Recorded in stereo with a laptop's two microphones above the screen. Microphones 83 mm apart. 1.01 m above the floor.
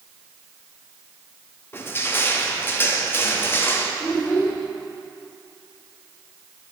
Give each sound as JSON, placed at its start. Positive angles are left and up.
{"t": 1.7, "sound": "crushing", "side_deg": 25, "distance_m": 0.5}
{"t": 4.0, "sound": "a child speaking", "side_deg": 25, "distance_m": 2.0}